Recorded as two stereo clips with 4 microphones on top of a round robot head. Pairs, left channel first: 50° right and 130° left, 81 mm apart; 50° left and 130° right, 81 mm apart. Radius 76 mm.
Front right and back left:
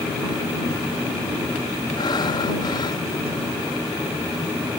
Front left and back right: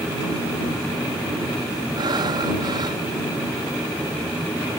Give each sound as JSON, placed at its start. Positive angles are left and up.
{"t": 2.0, "sound": "breathing", "azimuth_deg": -90}